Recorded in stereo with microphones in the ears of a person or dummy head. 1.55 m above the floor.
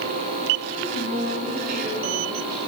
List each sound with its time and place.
0.7 s a woman speaking: 40° right (ahead or behind), 5 m; by 2.6 s 50° right (ahead or behind), 7 m